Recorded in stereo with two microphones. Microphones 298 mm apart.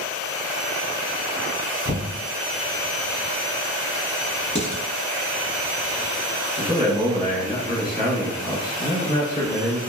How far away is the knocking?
About 1.8 m.